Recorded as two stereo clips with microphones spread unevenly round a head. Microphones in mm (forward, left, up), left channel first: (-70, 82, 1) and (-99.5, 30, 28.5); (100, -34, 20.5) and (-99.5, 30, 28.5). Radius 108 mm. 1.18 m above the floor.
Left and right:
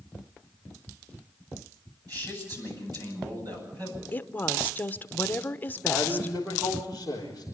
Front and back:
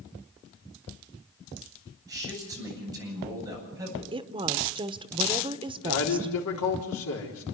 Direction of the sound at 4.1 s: 95° left.